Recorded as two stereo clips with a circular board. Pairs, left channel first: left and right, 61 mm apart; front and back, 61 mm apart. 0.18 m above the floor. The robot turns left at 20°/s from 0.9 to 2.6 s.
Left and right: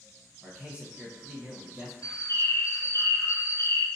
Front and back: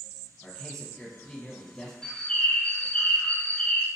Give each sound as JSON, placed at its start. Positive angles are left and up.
{"t": 0.4, "sound": "a man speaking", "azimuth_deg": -50, "distance_m": 1.2}
{"t": 2.0, "sound": "a bird", "azimuth_deg": 75, "distance_m": 0.6}